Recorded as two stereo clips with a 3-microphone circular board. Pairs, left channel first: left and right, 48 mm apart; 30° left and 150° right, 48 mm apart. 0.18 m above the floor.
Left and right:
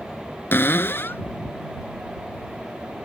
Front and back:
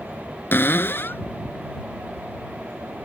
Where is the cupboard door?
60° left.